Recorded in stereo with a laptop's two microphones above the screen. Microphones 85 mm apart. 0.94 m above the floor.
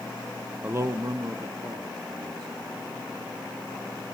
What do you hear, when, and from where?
0.6 s a man speaking: 20° right (ahead or behind), 0.6 m; by 4.0 s 65° right (ahead or behind), 5 m